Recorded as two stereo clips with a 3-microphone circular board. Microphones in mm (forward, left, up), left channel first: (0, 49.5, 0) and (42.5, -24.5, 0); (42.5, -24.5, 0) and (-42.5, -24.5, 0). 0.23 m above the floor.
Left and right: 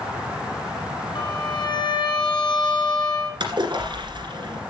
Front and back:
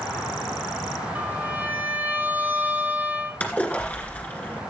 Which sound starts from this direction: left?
A violin, at 1.1 s.